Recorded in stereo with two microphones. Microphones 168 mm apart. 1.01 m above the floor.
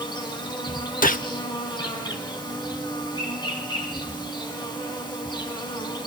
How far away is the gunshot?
About 0.9 m.